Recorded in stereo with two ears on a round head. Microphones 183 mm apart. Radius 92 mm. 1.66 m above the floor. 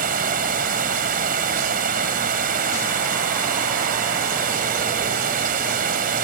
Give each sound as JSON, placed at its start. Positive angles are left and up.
{"t": 0.0, "sound": "running water", "side_deg": -40}